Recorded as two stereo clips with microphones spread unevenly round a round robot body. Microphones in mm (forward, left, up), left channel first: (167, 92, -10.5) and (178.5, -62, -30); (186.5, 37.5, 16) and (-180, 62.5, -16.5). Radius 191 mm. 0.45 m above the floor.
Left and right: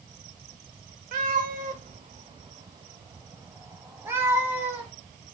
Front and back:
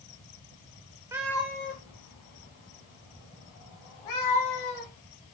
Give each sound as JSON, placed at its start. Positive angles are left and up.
{"t": 1.1, "sound": "a cat meowing", "azimuth_deg": -105, "distance_m": 0.5}